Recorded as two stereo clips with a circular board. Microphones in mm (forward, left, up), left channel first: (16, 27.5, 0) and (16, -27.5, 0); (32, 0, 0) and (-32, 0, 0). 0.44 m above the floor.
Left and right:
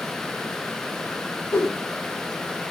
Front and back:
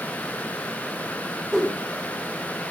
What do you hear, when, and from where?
1.5 s a whoosh: 95° left, 1.9 m